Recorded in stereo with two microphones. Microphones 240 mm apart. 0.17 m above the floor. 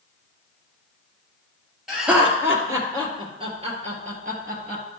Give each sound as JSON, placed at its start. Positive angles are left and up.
{"t": 1.9, "sound": "laughter", "side_deg": 0, "distance_m": 3.5}